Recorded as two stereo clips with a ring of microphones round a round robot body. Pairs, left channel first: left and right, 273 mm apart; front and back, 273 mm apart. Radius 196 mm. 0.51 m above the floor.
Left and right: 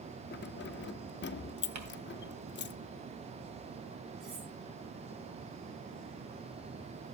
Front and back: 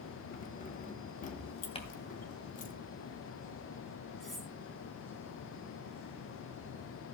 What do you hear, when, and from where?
0.3 s keys jangling: 55° left, 0.6 m
1.8 s crumpling: 70° right, 2.5 m
4.2 s cutlery clinking: 90° right, 5 m